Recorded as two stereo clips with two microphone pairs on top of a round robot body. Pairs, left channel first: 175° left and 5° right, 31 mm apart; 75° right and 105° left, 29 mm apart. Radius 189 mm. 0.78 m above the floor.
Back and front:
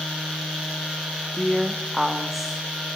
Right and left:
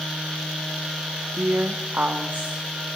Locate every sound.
1.3 s a woman speaking: 80° left, 1.8 m